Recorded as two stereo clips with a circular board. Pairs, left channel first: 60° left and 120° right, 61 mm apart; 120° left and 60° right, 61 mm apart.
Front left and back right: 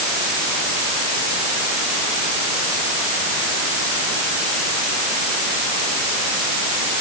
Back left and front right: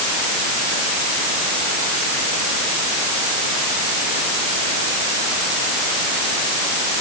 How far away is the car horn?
I don't hear a car horn.